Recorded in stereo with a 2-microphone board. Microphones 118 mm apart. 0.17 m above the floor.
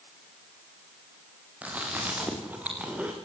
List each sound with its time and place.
1.6 s chewing: 10° right (ahead or behind), 7 m